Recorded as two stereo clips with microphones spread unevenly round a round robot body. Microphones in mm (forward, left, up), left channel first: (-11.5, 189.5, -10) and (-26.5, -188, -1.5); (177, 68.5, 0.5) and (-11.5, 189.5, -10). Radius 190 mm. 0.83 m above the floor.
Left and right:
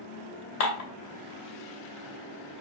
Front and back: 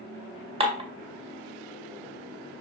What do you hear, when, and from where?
0.6 s dishes clattering: 80° left, 2 m